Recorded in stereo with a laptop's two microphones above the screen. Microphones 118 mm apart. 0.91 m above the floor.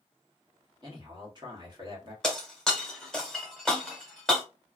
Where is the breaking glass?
5° left (ahead or behind), 1.3 m.